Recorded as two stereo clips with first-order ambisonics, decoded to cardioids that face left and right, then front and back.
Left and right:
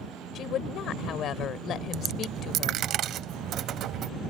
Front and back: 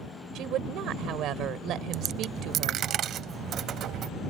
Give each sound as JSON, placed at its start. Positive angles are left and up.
{"t": 0.3, "sound": "a woman speaking", "azimuth_deg": 140}
{"t": 1.9, "sound": "a dropped coin", "azimuth_deg": -135}